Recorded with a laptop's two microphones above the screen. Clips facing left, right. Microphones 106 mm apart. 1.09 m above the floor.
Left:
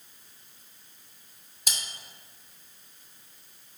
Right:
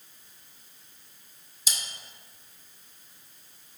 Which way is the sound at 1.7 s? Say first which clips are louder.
Left 1 dB; 55° left (ahead or behind).